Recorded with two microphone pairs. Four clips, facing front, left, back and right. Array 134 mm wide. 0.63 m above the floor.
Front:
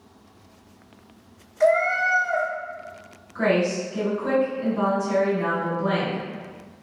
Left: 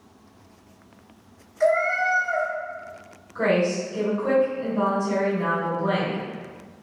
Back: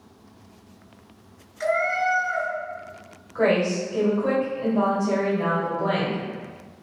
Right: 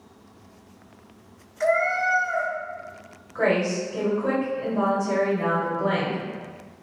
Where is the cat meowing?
10° left, 1.0 m.